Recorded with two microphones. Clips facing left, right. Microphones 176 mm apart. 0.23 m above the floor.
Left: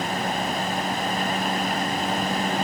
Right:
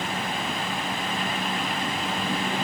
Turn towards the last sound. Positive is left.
No sound to turn to.